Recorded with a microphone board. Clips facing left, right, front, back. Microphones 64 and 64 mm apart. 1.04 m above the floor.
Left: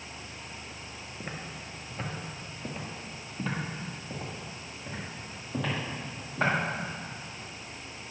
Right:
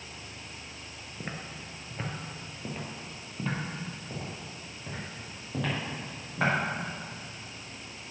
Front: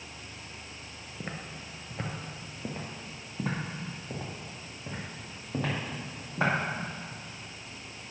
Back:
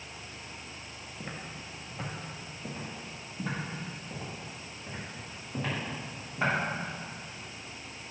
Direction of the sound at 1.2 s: 20° right.